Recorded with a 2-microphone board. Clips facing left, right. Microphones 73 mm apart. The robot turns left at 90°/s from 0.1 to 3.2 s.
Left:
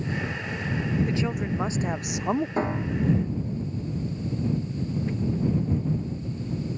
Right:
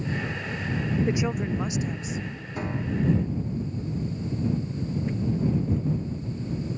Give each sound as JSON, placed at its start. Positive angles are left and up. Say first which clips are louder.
{"t": 1.1, "sound": "a woman speaking", "louder": "right 1 dB", "azimuth_deg": -155}
{"t": 2.6, "sound": "a piano", "louder": "left 2 dB", "side_deg": 35}